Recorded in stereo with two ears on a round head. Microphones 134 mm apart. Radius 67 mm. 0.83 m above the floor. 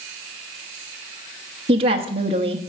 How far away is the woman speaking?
About 1.2 m.